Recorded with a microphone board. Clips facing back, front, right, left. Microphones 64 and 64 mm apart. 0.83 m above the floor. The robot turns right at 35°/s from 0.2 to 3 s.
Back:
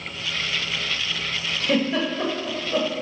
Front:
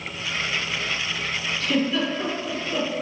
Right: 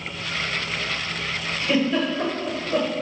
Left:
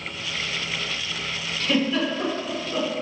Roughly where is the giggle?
Behind.